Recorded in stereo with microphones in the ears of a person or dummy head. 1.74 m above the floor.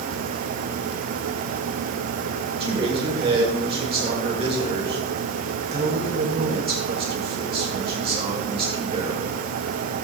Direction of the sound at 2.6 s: 30° right (ahead or behind).